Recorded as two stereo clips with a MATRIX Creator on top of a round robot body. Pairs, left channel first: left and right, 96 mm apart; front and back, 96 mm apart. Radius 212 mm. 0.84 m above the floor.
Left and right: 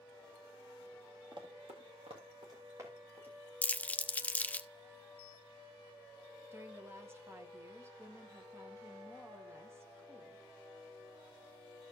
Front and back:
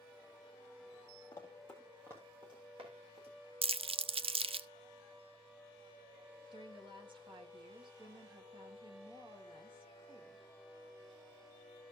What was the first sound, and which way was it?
Running footsteps, 55° right.